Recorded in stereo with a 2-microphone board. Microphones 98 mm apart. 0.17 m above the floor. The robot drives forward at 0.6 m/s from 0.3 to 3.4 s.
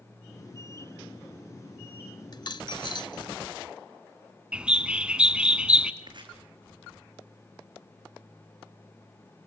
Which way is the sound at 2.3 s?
45° left (ahead or behind).